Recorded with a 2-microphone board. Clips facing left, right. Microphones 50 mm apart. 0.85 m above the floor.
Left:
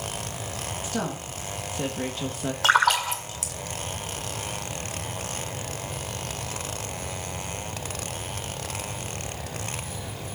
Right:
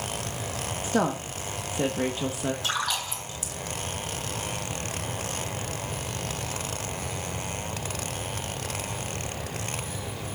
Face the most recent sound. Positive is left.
turn(degrees=75)  # may be behind; listen again after turning